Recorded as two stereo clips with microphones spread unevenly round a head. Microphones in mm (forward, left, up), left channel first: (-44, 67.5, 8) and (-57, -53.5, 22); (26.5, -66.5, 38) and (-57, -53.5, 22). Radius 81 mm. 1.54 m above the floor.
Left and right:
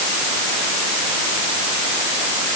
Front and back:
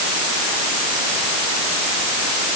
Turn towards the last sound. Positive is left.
No sound to turn to.